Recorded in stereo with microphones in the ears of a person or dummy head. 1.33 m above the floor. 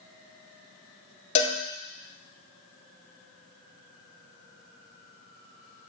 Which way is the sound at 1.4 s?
40° left (ahead or behind).